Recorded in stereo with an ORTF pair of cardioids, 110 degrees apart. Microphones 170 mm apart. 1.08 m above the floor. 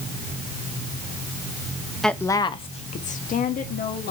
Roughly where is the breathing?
No breathing in this recording.